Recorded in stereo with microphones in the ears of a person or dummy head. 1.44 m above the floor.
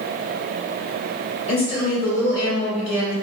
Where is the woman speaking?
25° left (ahead or behind), 0.9 m.